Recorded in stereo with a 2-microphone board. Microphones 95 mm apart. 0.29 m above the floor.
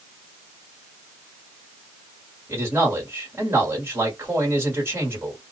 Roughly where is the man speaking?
Right.